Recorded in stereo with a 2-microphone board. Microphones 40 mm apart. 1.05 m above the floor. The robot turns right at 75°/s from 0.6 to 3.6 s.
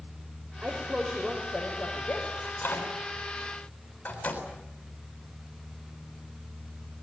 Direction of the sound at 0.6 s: 40° right.